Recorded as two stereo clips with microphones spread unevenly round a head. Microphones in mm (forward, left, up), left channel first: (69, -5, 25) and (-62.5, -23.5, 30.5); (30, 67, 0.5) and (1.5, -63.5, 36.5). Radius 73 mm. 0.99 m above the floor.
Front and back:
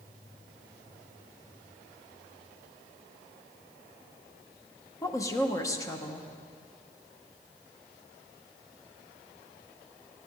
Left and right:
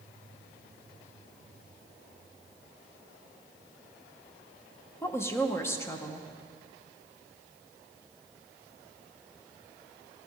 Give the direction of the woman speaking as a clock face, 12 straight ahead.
10 o'clock.